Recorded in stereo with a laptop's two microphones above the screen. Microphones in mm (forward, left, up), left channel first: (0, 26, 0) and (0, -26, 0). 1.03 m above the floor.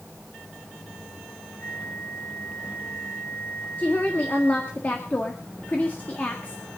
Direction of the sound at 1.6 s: 45° left (ahead or behind).